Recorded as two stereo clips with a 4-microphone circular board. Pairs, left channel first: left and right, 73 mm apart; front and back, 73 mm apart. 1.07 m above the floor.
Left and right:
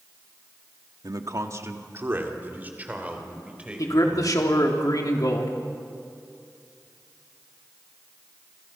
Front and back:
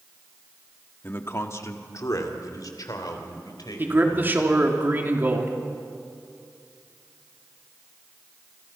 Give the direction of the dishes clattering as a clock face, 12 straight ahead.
I don't hear dishes clattering.